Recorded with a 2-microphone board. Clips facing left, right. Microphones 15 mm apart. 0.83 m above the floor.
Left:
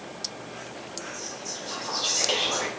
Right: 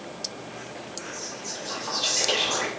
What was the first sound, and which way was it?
Whispering, 75° right (ahead or behind).